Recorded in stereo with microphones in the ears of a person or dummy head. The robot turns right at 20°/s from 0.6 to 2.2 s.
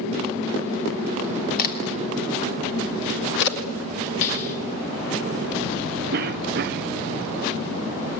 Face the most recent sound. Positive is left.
turn(degrees=-55)  # may be behind; listen again after turning